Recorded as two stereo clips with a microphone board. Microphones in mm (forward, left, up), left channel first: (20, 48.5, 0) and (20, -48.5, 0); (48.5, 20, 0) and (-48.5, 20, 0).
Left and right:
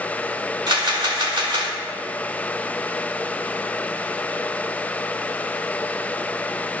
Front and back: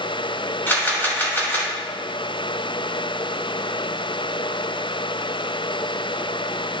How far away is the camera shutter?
About 1.6 m.